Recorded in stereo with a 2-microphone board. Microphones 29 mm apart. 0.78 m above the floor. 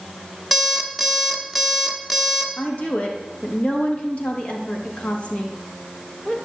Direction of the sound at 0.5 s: 5° right (ahead or behind).